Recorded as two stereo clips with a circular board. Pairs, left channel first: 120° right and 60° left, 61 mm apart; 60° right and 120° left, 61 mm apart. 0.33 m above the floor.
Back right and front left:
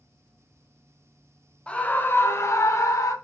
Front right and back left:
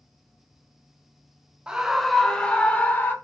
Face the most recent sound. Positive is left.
turn(degrees=-120)